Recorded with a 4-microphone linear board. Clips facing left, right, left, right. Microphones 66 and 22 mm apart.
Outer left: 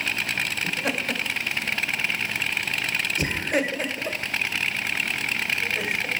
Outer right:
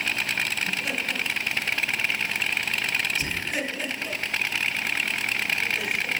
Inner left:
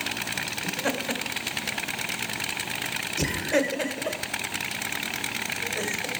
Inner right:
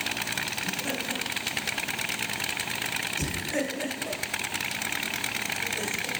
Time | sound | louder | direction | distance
0.6 | laughter | outer left 2 dB, inner left 3 dB | 70° left (ahead or behind) | 2.5 m